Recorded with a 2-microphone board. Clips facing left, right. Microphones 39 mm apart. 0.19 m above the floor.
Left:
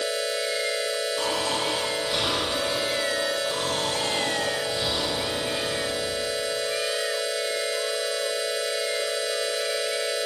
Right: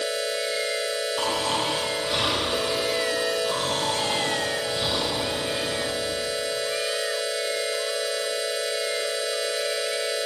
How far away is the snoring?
About 3 m.